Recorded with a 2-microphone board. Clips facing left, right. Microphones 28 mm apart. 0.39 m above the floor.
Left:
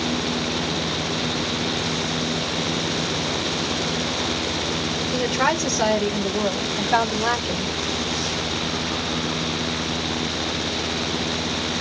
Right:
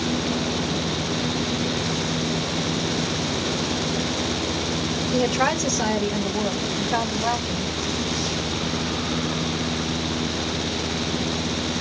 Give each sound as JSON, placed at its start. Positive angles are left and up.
{"t": 5.1, "sound": "a woman speaking", "side_deg": 10, "distance_m": 1.3}